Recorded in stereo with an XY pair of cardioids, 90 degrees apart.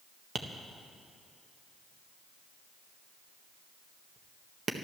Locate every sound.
0.3 s tapping: 45° right, 1.5 m